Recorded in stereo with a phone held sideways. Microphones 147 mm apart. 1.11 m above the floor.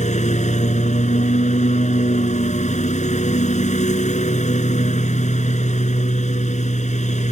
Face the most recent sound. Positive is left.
turn(degrees=60)  # may be behind; listen again after turning